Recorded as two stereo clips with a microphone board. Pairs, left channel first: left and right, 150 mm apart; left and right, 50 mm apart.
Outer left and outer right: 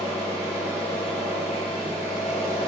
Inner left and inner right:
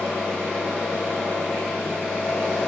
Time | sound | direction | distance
0.0 | an engine running | 10° left (ahead or behind) | 1.8 m